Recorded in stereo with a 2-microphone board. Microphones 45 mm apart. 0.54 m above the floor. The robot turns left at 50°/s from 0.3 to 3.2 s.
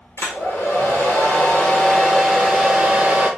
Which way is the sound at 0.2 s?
110° left.